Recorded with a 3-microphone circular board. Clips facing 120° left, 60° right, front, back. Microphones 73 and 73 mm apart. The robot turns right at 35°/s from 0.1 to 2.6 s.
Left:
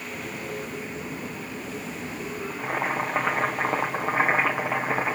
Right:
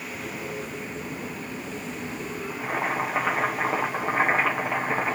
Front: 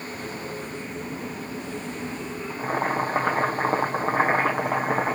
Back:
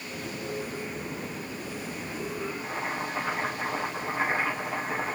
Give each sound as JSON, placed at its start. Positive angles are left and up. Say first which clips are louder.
{"t": 2.5, "sound": "boiling", "louder": "even, front 7 dB", "azimuth_deg": 35, "distance_m": 2.0}